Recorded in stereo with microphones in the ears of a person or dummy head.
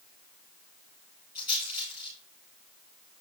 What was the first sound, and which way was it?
A rattle, 10° right (ahead or behind).